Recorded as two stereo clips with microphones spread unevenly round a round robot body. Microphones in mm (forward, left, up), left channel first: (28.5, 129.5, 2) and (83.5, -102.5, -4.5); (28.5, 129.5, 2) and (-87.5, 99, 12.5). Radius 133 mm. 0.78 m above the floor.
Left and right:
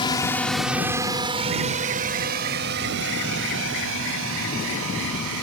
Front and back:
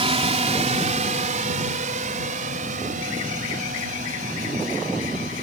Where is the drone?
175° left; by 5.4 s 115° right.